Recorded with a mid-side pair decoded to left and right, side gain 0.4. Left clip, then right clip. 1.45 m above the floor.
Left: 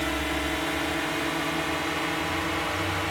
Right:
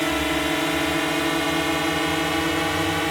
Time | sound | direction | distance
0.0 | a drone | 50° right | ?